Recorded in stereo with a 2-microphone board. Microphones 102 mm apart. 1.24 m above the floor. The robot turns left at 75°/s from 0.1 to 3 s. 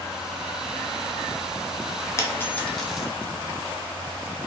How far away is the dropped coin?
About 0.6 m.